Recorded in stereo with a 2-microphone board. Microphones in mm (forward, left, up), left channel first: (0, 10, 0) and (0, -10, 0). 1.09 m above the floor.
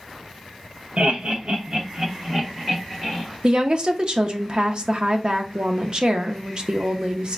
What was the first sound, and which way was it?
Laughter, 75° right (ahead or behind).